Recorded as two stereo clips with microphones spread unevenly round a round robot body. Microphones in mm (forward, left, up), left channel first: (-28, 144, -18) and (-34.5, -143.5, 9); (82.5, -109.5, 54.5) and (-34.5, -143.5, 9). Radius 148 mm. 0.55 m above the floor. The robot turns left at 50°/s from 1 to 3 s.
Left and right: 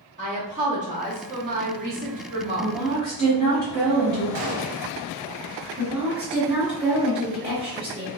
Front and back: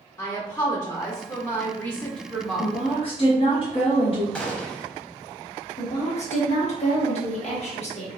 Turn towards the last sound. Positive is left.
turn(degrees=-20)